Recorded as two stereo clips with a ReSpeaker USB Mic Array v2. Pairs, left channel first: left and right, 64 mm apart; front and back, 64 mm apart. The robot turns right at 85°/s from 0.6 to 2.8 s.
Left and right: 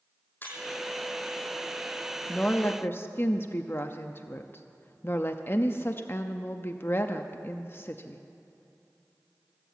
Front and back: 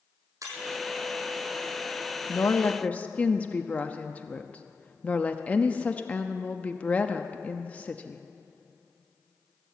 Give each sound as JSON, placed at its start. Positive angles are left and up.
{"t": 0.4, "sound": "breaking glass", "azimuth_deg": 150, "distance_m": 5.5}
{"t": 2.3, "sound": "a woman speaking", "azimuth_deg": 15, "distance_m": 0.6}